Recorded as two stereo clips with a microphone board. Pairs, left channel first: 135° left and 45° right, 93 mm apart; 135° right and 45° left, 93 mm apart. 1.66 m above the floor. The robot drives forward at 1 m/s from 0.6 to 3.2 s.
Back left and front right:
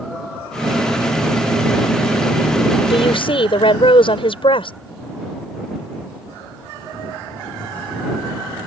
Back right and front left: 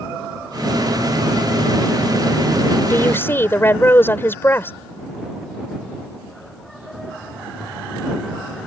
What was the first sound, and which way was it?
A woman speaking, 160° left.